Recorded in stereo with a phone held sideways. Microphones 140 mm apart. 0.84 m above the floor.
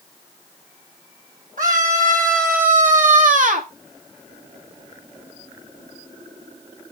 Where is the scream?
75° right (ahead or behind), 2.5 m; by 3.7 s 65° right (ahead or behind), 1.4 m.